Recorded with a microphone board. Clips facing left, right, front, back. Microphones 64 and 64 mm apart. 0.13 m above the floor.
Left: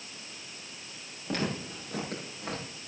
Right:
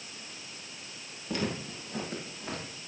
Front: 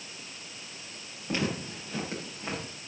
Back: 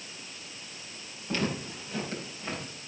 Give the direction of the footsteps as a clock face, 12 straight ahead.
10 o'clock.